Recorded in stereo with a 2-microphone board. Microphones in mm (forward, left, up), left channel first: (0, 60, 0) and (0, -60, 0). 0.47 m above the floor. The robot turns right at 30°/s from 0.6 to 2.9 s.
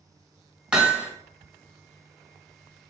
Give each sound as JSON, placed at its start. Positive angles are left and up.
{"t": 0.7, "sound": "hammering", "side_deg": -5, "distance_m": 1.3}